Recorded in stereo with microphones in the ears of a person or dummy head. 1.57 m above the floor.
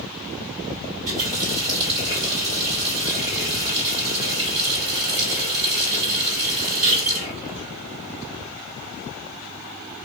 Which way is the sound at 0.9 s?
35° right (ahead or behind).